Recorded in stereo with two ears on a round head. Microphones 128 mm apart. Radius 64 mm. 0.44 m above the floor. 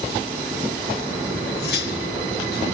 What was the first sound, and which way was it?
Cutlery clinking, 85° left.